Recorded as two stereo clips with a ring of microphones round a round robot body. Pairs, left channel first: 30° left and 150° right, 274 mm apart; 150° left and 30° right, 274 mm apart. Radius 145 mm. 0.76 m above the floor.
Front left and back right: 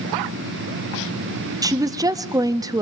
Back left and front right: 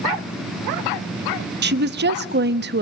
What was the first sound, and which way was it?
A woman speaking, 75° right.